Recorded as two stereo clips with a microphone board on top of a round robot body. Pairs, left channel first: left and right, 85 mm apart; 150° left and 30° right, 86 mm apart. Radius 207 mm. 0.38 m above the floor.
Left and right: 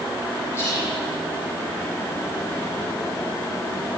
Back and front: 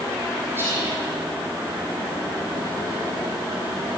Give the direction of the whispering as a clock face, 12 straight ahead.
11 o'clock.